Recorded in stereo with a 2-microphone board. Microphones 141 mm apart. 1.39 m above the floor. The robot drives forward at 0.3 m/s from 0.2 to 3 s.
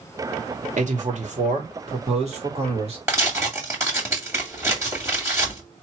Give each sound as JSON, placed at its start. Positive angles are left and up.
{"t": 0.8, "sound": "a man speaking", "side_deg": -60, "distance_m": 1.8}
{"t": 3.1, "sound": "tearing paper", "side_deg": -20, "distance_m": 2.5}